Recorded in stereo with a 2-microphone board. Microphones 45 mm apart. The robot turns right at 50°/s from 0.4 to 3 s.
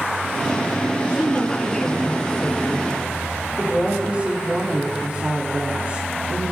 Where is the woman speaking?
130° right, 5.5 m; by 6.5 s 35° right, 5.5 m.